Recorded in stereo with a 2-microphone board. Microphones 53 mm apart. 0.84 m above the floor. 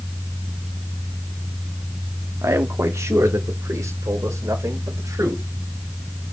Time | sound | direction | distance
2.4 | a man speaking | 75° right (ahead or behind) | 1.2 m